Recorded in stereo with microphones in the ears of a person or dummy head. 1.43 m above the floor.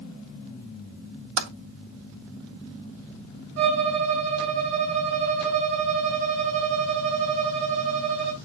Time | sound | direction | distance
1.4 | typing on a keyboard | 55° right (ahead or behind) | 0.8 m
3.6 | a violin | 65° right (ahead or behind) | 3.5 m